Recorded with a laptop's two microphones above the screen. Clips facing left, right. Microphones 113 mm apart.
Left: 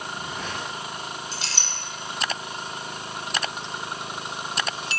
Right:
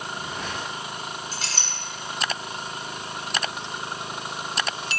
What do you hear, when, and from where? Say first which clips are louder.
1.3 s a clink: right 1 dB; 45° right (ahead or behind), 2.5 m